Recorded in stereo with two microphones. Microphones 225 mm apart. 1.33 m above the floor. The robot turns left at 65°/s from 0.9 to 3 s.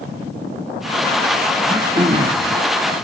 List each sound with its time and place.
1.6 s throat clearing: 5° right, 1.7 m; by 2.5 s 65° right, 1.7 m